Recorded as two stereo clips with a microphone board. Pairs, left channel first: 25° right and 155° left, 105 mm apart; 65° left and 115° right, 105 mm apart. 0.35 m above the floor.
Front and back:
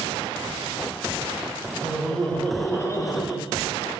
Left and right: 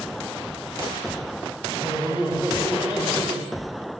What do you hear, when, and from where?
1.8 s laughter: 135° right, 1.2 m; by 3.6 s 20° right, 1.6 m